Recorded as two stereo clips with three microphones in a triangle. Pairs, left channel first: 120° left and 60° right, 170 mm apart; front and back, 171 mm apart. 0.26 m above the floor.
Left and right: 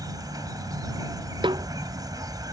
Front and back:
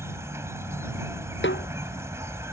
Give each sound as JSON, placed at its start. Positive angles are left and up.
{"t": 0.0, "sound": "an insect", "azimuth_deg": -115}
{"t": 1.4, "sound": "a snare drum", "azimuth_deg": 5}